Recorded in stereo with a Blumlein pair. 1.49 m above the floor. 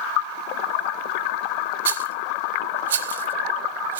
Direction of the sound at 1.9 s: 60° right.